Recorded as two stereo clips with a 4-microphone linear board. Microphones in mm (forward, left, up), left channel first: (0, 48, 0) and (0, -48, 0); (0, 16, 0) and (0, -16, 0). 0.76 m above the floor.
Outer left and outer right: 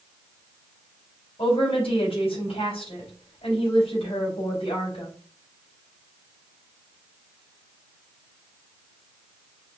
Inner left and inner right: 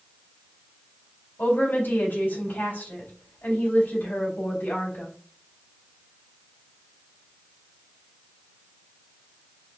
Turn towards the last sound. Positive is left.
turn(degrees=80)